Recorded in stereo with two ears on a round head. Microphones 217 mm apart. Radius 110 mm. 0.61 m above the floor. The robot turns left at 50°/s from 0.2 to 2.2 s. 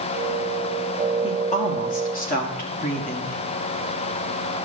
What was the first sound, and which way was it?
A woman speaking, 135° left.